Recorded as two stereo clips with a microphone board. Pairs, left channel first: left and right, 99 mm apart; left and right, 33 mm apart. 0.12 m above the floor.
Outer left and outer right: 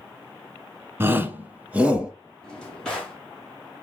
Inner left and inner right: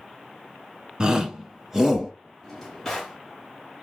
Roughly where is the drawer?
Centre.